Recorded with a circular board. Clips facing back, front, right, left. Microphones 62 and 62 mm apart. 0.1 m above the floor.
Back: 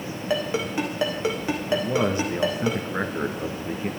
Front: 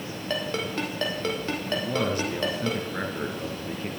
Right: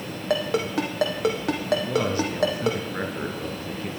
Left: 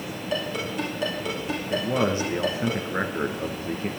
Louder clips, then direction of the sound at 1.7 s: Back 4 dB, even; 130° left.